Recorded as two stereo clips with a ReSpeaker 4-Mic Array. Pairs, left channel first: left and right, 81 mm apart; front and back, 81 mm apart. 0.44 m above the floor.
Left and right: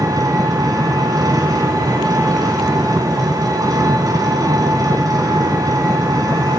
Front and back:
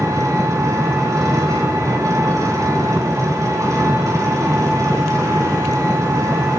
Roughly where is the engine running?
Behind right.